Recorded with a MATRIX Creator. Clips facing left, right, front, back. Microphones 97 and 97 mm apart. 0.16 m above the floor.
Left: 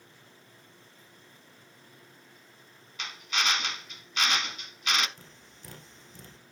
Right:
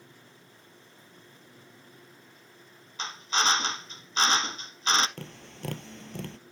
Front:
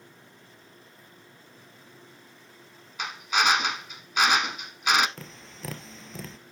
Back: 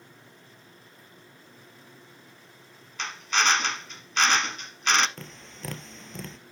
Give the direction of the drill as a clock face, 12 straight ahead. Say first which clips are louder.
Right 4 dB, front 1 dB; 2 o'clock.